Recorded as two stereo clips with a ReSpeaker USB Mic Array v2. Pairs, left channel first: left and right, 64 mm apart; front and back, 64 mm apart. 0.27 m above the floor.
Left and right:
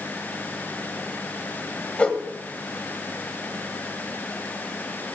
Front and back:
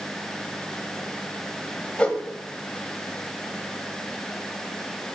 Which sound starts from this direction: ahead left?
A whoosh, at 2.0 s.